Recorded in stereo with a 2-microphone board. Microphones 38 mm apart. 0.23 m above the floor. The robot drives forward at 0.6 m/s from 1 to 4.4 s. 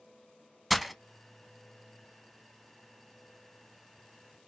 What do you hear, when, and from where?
0.7 s breaking glass: 5° right (ahead or behind), 0.5 m